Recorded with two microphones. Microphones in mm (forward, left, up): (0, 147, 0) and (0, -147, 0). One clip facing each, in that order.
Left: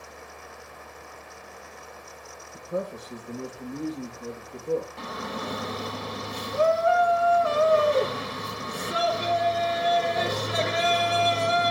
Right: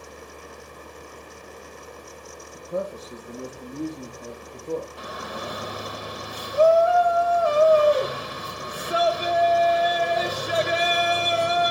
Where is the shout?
25° left (ahead or behind), 1.6 m.